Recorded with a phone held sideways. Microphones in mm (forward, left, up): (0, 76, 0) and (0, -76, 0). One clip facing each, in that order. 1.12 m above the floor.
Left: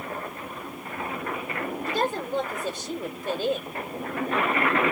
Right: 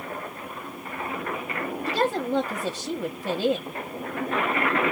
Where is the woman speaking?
85° right, 1.5 m.